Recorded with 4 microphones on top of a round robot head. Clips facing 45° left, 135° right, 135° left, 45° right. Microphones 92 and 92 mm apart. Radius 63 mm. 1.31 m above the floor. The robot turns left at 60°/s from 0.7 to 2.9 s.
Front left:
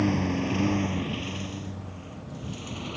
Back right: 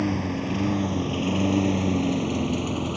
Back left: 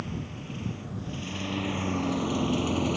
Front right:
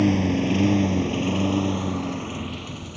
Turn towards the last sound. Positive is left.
turn(degrees=170)